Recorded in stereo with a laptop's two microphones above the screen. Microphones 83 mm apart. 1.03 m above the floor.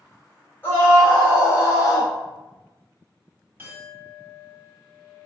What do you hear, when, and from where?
0.6 s a scream: 25° left (ahead or behind), 1.7 m; by 2.1 s 45° left (ahead or behind), 0.8 m
3.6 s a clink: 25° right (ahead or behind), 1.3 m